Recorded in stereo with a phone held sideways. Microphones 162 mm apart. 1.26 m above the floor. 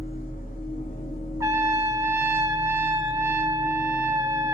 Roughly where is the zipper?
I don't hear a zipper.